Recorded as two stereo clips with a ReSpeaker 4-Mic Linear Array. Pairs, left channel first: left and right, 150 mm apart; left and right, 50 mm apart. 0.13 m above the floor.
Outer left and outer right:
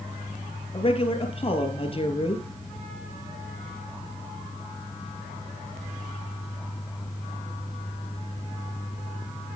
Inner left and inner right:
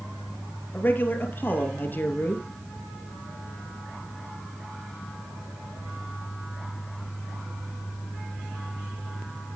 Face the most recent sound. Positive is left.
turn(degrees=40)  # may be behind; listen again after turning